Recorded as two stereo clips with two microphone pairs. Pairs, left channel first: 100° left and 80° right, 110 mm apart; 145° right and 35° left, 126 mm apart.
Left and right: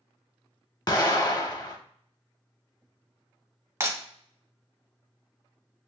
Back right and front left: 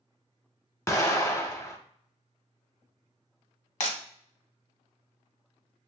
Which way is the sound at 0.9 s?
155° left.